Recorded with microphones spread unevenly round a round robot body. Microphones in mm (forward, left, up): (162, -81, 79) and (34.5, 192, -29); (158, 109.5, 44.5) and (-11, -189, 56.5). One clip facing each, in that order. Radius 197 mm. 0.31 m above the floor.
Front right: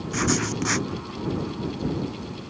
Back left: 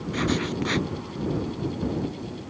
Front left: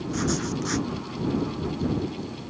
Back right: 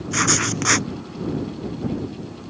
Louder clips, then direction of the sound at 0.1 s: Even, back right 2 dB; 135° right.